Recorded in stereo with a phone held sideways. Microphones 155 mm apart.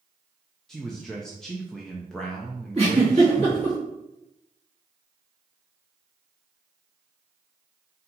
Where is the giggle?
40° right (ahead or behind), 2 m.